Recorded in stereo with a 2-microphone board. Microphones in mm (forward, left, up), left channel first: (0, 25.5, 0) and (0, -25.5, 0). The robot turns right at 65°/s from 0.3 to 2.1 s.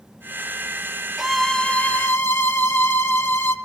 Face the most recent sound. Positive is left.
turn(degrees=50)